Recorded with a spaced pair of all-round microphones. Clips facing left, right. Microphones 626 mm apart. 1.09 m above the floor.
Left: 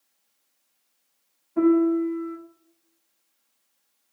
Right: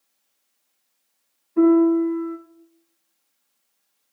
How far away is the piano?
About 0.6 m.